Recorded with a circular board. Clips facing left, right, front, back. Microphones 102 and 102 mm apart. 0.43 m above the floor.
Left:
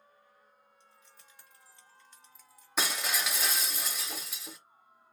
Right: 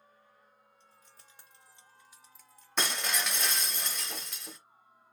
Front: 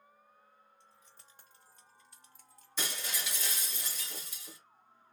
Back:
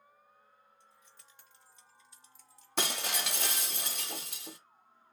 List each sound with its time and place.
0.8 s keys jangling: 55° right, 1.2 m; by 3.8 s 50° left, 1.3 m
2.8 s breaking glass: 175° left, 0.5 m